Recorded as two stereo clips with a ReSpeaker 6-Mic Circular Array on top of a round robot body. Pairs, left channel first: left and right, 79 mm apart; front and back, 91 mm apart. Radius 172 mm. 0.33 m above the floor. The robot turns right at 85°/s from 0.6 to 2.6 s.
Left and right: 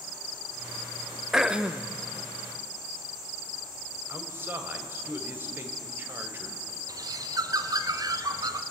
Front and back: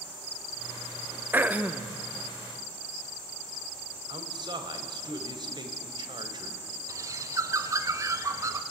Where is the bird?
125° right, 1.3 m.